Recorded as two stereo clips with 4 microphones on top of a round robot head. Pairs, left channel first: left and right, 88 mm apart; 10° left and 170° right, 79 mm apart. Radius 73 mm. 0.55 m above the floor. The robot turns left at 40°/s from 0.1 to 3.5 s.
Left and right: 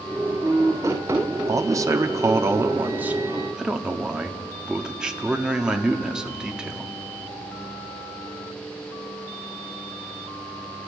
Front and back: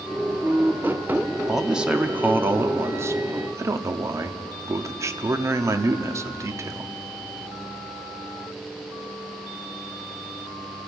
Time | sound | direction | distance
1.5 | a man speaking | 85° right | 1.1 m